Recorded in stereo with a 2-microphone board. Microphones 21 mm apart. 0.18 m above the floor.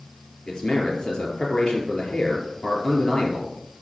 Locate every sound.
0.5 s a man speaking: 50° left (ahead or behind), 3.5 m